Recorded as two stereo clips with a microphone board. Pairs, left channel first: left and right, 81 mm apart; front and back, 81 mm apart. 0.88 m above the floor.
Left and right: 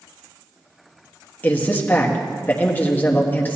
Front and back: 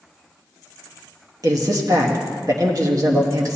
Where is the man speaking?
155° left, 1.3 m.